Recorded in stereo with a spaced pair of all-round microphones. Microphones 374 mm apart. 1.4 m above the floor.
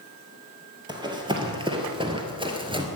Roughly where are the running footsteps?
Centre.